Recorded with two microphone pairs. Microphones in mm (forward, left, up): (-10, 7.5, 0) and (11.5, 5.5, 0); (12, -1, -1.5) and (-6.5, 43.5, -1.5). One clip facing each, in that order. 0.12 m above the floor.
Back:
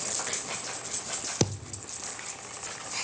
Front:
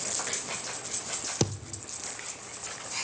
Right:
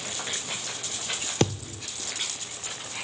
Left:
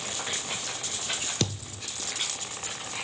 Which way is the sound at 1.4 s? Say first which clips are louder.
Back 2 dB, right 6 dB; 110° right.